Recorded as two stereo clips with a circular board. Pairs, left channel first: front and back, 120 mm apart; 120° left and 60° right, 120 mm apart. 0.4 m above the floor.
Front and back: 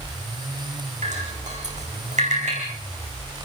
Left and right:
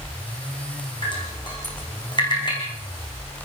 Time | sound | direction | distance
1.0 | dripping | 170° left | 8.5 m